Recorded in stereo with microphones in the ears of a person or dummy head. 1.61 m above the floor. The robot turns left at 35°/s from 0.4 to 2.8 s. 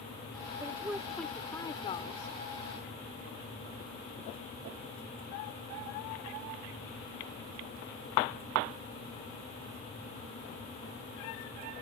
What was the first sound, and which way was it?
A woman speaking, 170° right.